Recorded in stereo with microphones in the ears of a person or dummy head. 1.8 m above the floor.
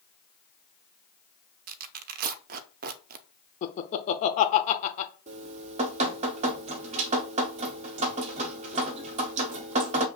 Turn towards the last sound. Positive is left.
turn(degrees=-40)  # may be behind; listen again after turning